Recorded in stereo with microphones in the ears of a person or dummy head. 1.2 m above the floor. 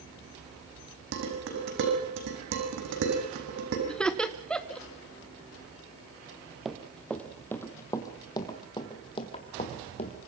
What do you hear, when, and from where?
1.1 s dishes clattering: 65° right (ahead or behind), 6 m
3.9 s laughter: 5° left (ahead or behind), 1.0 m
6.7 s running footsteps: 5° right (ahead or behind), 1.8 m; by 10.2 s 35° left (ahead or behind), 3 m